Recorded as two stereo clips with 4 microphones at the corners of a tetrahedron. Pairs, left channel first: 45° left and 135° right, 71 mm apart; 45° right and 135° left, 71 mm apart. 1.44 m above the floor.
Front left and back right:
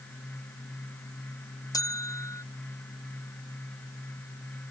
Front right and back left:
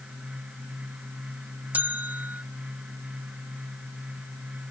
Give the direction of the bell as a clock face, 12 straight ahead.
10 o'clock.